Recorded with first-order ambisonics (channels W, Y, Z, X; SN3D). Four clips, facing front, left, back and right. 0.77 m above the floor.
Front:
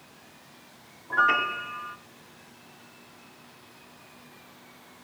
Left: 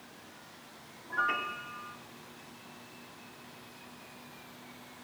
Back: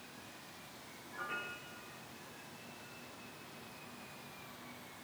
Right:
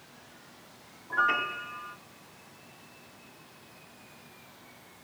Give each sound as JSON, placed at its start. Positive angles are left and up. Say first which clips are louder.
{"t": 1.1, "sound": "a piano", "louder": "right 5 dB, front 20 dB", "azimuth_deg": -15, "distance_m": 0.8}